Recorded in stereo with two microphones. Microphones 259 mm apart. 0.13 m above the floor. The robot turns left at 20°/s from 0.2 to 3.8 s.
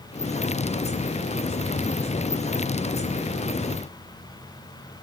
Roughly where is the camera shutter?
No camera shutter in this recording.